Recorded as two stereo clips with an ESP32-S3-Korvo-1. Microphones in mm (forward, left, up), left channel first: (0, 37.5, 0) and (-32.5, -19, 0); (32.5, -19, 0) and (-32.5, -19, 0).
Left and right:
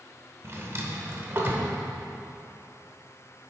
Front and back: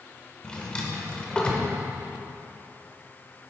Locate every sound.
0.4 s a drawer: 70° right, 1.2 m